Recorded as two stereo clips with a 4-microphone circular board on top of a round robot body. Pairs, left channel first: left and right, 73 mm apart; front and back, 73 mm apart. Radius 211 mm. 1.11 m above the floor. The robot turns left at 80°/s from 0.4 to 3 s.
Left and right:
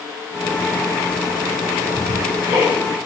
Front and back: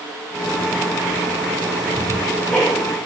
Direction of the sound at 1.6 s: 5° right.